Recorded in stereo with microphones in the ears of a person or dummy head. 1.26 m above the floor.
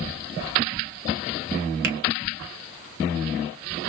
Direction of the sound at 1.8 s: 55° right (ahead or behind).